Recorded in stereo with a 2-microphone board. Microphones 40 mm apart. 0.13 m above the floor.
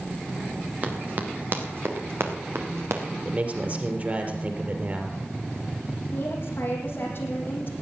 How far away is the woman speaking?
About 6 m.